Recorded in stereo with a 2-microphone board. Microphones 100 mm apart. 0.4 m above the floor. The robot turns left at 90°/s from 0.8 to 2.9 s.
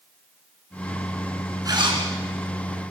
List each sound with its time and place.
1.6 s a zipper: 40° right, 5 m; by 2.0 s 75° right, 5 m